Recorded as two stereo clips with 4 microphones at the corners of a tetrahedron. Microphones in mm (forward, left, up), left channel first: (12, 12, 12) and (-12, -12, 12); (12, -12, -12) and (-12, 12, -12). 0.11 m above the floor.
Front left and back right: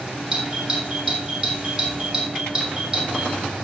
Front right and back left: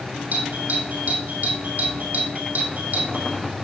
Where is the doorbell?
155° left, 5 m.